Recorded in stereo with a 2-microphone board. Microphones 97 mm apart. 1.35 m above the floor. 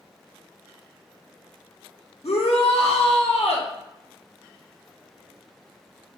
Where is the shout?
80° left, 0.9 m.